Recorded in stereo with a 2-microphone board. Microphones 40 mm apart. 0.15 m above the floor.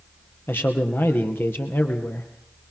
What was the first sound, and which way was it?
A man speaking, 65° left (ahead or behind).